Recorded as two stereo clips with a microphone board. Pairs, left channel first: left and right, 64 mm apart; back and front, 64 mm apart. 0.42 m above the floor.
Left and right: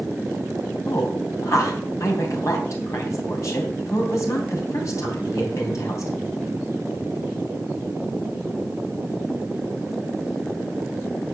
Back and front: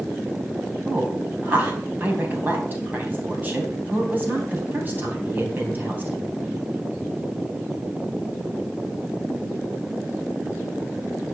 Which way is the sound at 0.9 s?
60° left.